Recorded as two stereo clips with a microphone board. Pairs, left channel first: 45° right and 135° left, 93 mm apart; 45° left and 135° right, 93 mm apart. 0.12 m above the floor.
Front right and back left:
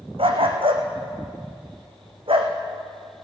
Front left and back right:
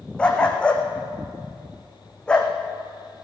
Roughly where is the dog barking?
Behind left.